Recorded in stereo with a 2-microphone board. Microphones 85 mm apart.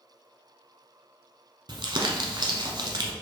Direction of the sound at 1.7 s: 65° right (ahead or behind).